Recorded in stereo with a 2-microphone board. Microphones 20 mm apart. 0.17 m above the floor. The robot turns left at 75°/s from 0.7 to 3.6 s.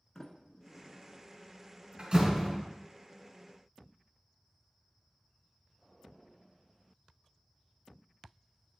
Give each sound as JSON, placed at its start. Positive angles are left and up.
{"t": 0.1, "sound": "a sliding door", "side_deg": 25, "distance_m": 0.9}
{"t": 2.0, "sound": "a door slam", "side_deg": -50, "distance_m": 2.5}